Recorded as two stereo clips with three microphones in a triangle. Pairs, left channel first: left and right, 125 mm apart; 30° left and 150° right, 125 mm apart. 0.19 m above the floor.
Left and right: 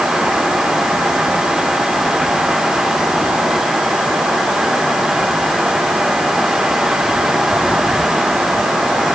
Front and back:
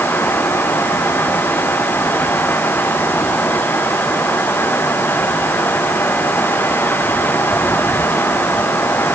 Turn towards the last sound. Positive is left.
No sound to turn to.